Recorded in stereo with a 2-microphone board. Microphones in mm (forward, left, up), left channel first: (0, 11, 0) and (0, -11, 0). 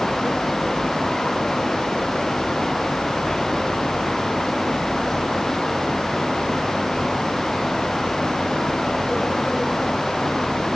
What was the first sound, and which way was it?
Only background noise.